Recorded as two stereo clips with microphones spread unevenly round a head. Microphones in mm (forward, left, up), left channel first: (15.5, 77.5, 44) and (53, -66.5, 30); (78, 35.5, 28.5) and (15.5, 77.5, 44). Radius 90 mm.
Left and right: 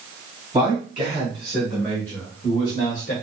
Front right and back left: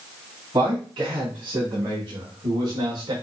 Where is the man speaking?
150° right, 2.5 m; by 3.1 s 150° left, 1.4 m.